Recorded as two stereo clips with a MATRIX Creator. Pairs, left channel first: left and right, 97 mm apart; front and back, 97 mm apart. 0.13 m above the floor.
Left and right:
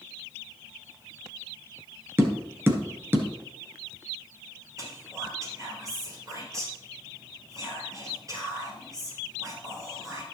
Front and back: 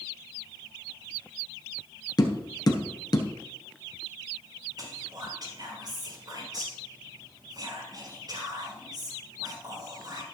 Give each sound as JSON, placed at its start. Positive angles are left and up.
{"t": 2.2, "sound": "tapping", "azimuth_deg": -30, "distance_m": 1.4}
{"t": 4.8, "sound": "whispering", "azimuth_deg": -140, "distance_m": 3.5}